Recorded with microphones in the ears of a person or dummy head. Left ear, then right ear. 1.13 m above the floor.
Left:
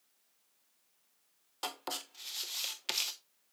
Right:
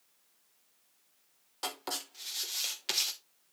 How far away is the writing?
About 1.0 m.